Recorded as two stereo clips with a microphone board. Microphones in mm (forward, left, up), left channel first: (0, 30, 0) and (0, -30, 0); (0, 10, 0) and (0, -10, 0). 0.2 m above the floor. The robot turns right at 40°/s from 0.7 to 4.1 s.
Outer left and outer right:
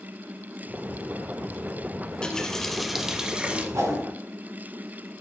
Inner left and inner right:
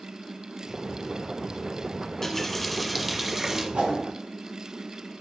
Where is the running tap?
150° left, 0.9 m; by 3.6 s 150° right, 0.9 m.